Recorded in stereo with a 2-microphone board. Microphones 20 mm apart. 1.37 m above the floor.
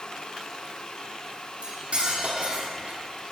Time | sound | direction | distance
1.6 | cutlery clinking | 70° right (ahead or behind) | 1.8 m